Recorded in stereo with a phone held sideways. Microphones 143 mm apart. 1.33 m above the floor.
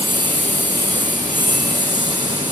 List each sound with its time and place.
0.0 s a lawn mower: 30° right (ahead or behind)